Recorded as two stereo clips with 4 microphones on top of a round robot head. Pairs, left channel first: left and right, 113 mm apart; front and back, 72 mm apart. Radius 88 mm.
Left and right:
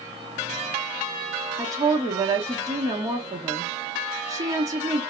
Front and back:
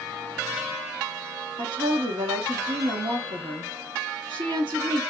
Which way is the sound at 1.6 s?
150° right.